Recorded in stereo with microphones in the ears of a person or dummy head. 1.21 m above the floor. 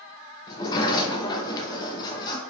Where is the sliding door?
25° left (ahead or behind), 0.9 m.